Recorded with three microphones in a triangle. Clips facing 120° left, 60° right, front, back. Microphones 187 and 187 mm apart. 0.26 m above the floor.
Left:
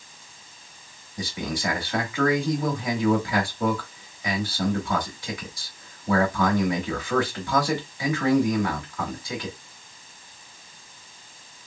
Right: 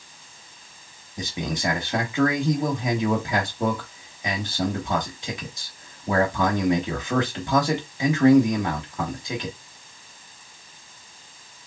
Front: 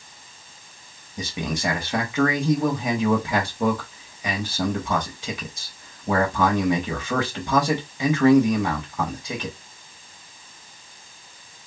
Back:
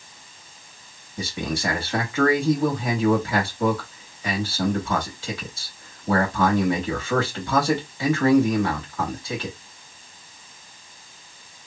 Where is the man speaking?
40° right, 0.9 m.